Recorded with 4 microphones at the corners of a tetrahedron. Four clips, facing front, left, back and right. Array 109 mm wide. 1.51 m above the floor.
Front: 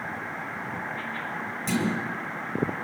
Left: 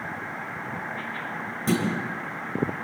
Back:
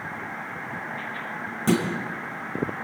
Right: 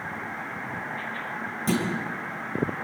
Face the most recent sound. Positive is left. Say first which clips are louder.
# left 1 dB, back 6 dB
turn(degrees=175)